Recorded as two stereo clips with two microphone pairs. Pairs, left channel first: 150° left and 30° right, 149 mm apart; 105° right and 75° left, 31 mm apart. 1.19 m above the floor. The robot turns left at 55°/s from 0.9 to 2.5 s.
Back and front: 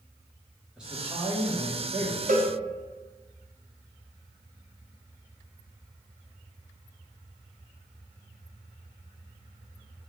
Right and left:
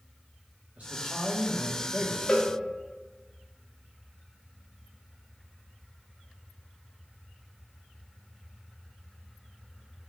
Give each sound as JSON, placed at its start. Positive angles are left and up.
{"t": 0.8, "sound": "a man speaking", "azimuth_deg": 55, "distance_m": 1.1}
{"t": 2.3, "sound": "a cowbell", "azimuth_deg": -50, "distance_m": 0.5}